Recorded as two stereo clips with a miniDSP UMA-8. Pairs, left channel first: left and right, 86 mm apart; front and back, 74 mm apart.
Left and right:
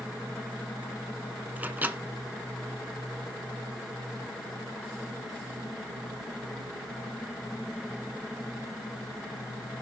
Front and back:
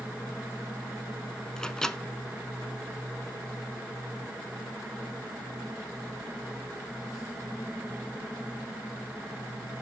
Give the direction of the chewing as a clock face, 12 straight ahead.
I don't hear chewing.